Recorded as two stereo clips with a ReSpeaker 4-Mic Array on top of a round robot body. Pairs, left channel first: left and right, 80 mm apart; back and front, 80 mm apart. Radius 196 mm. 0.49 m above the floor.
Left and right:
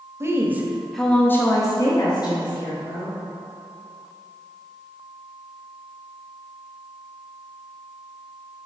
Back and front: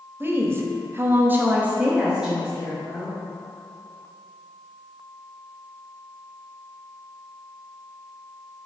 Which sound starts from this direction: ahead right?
A woman speaking, at 0.2 s.